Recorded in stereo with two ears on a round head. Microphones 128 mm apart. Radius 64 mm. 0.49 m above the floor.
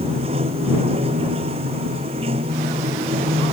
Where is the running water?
40° right (ahead or behind).